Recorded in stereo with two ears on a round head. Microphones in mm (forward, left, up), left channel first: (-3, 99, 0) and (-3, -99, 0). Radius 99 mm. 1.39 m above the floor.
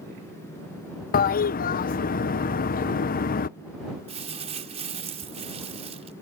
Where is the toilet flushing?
40° left (ahead or behind).